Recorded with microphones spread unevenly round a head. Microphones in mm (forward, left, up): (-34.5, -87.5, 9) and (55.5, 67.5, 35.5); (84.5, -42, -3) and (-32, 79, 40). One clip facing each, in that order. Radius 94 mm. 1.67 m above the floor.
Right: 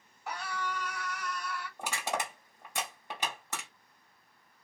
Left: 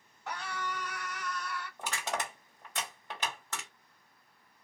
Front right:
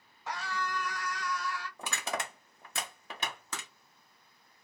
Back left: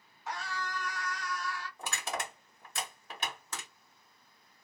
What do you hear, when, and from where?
0.3 s a scream: 40° right, 1.7 m
1.8 s crushing: 40° right, 1.3 m